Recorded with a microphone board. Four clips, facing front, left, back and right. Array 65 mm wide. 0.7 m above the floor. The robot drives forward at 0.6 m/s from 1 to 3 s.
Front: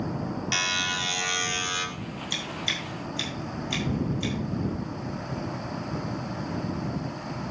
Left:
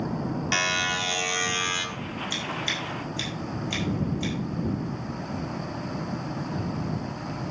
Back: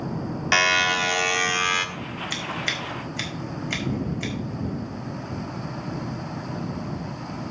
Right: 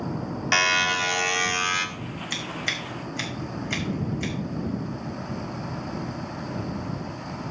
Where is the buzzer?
155° right, 1.3 m; by 1.9 s 160° right, 1.8 m.